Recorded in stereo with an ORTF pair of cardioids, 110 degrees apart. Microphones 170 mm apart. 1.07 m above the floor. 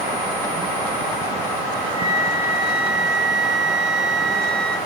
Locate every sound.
1.9 s a flute: 30° right, 4.5 m